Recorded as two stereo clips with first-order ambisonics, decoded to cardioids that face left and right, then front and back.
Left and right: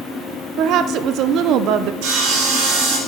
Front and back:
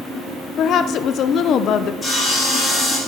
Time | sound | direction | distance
0.6 | a woman speaking | 50° right | 0.7 m
2.0 | sawing | 80° right | 3 m